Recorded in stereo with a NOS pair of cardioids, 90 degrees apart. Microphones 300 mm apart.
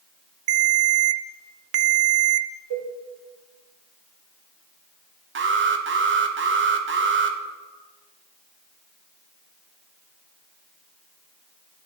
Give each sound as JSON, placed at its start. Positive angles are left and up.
{"t": 0.5, "sound": "a ringtone", "azimuth_deg": -55, "distance_m": 0.5}
{"t": 2.7, "sound": "a cowbell", "azimuth_deg": -60, "distance_m": 2.5}
{"t": 5.3, "sound": "an alarm", "azimuth_deg": -40, "distance_m": 0.9}